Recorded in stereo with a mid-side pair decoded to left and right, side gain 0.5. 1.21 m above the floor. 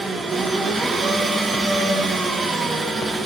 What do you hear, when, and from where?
0.0 s an engine running: 35° right, 5 m